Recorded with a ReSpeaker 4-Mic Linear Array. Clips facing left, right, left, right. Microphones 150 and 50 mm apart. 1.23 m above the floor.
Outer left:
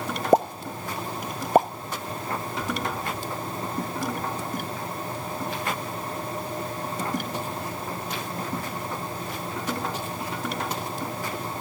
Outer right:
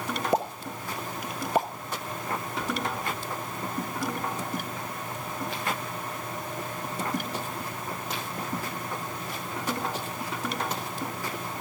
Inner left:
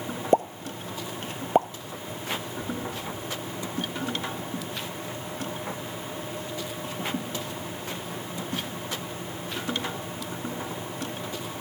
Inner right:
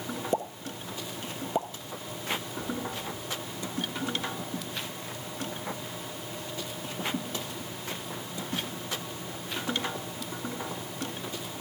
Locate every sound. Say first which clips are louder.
0.3 s a pop: outer left 9 dB, inner left 10 dB; 45° left (ahead or behind), 0.6 m
2.6 s an explosion: outer left 1 dB, inner left 2 dB; 5° left (ahead or behind), 7.5 m